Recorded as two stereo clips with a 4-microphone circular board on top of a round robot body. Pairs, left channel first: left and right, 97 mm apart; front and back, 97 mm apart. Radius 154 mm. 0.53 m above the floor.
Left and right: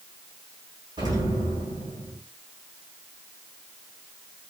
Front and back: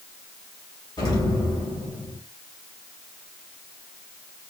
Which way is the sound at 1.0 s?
45° right.